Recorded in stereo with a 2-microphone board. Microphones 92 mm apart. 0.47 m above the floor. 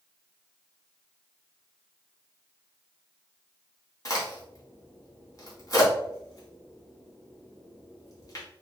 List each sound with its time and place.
4.0 s a crack: 40° left (ahead or behind), 1.7 m